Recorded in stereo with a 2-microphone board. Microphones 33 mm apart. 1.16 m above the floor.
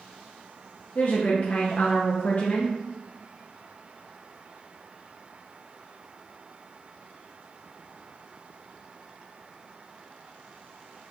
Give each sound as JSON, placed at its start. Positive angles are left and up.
{"t": 0.9, "sound": "a woman speaking", "side_deg": 50, "distance_m": 0.6}